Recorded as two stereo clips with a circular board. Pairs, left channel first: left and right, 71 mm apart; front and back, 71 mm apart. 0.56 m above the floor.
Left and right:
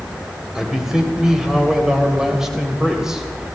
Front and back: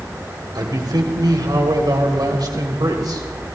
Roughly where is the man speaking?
Behind.